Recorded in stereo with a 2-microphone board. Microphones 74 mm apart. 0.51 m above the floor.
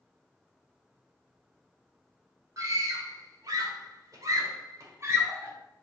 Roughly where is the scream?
Right.